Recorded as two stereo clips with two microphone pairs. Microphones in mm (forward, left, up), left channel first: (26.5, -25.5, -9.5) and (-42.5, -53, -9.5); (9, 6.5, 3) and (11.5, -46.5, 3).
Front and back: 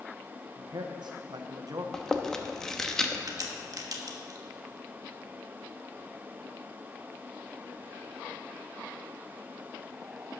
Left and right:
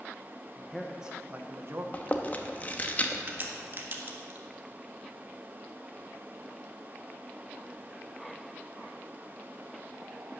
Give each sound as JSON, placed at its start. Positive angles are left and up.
{"t": 0.6, "sound": "a man speaking", "azimuth_deg": 165, "distance_m": 0.7}
{"t": 1.9, "sound": "chewing", "azimuth_deg": 100, "distance_m": 0.8}
{"t": 3.3, "sound": "a crack", "azimuth_deg": -130, "distance_m": 1.2}